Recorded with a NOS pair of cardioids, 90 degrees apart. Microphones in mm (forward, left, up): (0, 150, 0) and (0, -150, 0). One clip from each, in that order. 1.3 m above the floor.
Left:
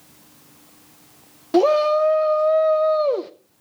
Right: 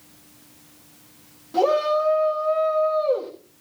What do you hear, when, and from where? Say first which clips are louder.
1.5 s a shout: left 3 dB; 70° left, 0.7 m